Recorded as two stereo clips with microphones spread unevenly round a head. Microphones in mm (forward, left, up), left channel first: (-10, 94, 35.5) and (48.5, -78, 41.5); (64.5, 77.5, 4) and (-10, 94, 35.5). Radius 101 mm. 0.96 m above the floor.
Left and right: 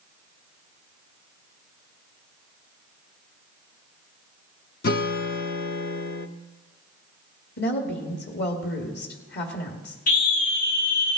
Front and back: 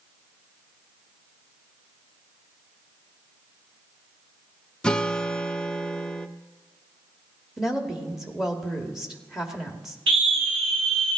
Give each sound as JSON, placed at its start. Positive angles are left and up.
{"t": 4.8, "sound": "a guitar", "azimuth_deg": 90, "distance_m": 0.6}
{"t": 7.6, "sound": "a woman speaking", "azimuth_deg": 80, "distance_m": 1.9}
{"t": 10.1, "sound": "a scream", "azimuth_deg": 155, "distance_m": 1.4}